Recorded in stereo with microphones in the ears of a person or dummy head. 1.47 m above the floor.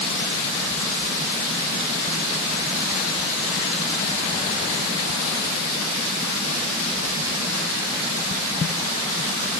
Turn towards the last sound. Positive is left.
No sound to turn to.